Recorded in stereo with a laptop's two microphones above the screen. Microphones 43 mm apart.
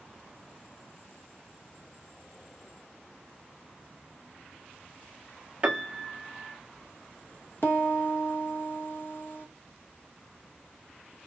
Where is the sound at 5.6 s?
25° right (ahead or behind), 1.1 m.